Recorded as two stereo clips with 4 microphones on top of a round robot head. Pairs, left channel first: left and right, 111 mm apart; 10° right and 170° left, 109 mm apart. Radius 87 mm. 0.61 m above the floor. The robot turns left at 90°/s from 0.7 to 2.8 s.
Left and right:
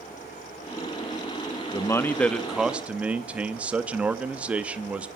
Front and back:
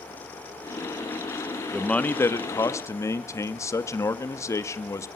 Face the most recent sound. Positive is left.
turn(degrees=-25)